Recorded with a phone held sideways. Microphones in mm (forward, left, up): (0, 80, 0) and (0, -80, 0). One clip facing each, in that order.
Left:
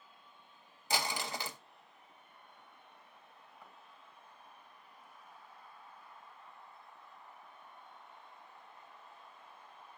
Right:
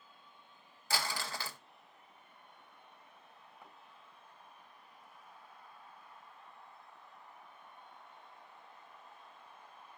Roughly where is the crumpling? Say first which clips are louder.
Left 2 dB; centre.